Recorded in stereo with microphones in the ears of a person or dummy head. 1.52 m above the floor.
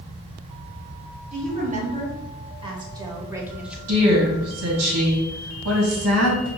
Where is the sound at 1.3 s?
45° right (ahead or behind), 1.9 m; by 3.8 s 5° right (ahead or behind), 0.9 m.